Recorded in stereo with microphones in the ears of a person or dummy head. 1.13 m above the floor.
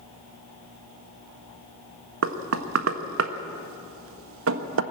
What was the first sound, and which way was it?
Knocking, 75° right (ahead or behind).